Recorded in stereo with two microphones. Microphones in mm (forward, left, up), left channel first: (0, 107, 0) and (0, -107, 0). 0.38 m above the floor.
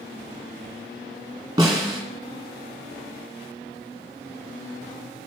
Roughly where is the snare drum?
Centre.